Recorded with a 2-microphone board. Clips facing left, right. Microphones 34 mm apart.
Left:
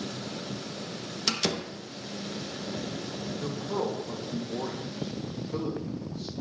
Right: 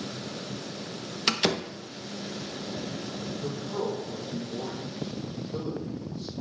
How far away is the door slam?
About 0.6 m.